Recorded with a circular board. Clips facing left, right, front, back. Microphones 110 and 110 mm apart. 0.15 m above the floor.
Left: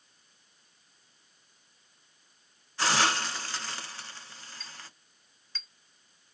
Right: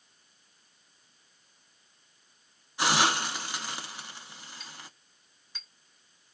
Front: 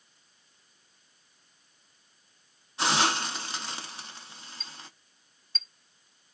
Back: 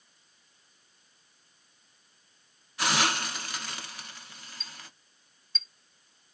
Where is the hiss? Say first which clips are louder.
Right 1 dB, front 2 dB; 30° right, 0.8 m.